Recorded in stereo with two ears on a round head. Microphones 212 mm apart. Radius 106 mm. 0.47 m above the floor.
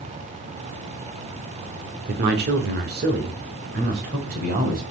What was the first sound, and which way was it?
A man speaking, 40° right (ahead or behind).